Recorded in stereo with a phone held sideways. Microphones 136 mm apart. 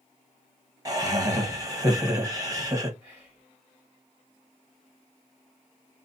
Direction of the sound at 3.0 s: 15° right (ahead or behind).